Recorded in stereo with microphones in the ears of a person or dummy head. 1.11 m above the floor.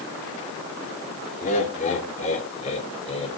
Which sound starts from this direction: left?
Laughter, at 1.4 s.